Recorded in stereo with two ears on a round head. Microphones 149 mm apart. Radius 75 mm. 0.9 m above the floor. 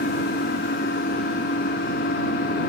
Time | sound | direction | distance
0.0 | an engine running | 60° left (ahead or behind) | ?